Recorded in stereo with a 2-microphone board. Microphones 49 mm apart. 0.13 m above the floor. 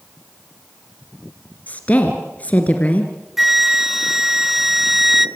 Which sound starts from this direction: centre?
A flute, at 3.4 s.